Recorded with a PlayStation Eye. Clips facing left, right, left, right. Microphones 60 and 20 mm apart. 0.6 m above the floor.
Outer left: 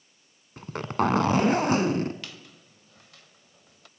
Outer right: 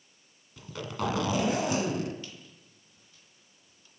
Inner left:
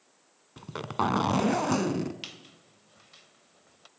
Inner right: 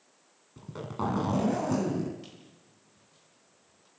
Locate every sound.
0.6 s a zipper: 45° left (ahead or behind), 1.6 m
2.2 s a squeak: 85° left, 1.0 m